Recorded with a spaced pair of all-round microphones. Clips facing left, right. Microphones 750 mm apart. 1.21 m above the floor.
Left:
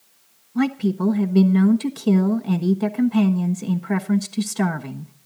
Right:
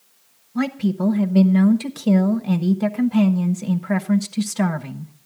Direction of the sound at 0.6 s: 15° right (ahead or behind).